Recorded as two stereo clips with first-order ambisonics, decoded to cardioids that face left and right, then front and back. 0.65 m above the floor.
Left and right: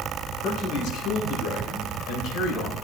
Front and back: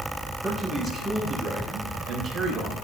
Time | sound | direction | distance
0.4 | a man speaking | 80° left | 2.5 m